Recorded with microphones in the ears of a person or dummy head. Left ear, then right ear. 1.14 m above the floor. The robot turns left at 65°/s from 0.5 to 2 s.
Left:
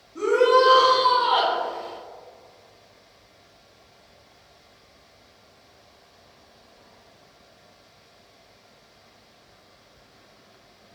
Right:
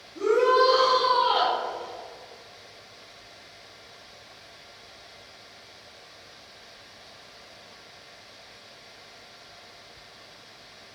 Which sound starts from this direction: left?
A shout, at 0.1 s.